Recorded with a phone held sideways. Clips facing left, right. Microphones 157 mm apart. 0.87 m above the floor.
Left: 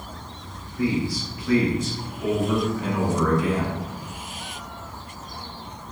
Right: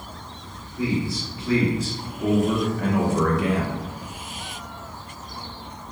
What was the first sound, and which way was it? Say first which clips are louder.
A man speaking: left 1 dB; 20° right (ahead or behind).